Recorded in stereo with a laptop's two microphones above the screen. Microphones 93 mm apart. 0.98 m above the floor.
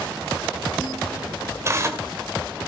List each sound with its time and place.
1.6 s tearing paper: 30° right (ahead or behind), 2 m